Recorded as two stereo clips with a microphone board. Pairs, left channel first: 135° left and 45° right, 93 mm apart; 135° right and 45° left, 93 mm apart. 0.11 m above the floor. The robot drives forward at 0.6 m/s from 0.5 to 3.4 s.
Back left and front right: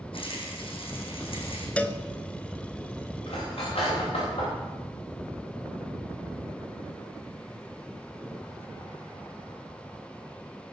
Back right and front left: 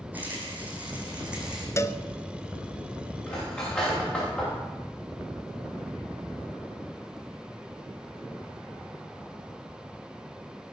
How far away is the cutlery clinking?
About 10 m.